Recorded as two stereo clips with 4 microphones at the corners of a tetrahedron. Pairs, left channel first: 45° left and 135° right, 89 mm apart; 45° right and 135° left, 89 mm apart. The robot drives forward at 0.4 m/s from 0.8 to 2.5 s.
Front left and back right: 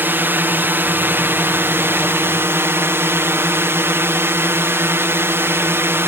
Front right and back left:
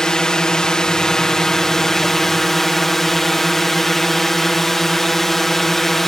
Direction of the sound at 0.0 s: 115° right.